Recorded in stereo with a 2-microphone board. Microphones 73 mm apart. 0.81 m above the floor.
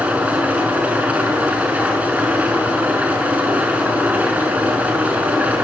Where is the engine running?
20° right (ahead or behind), 6.5 m.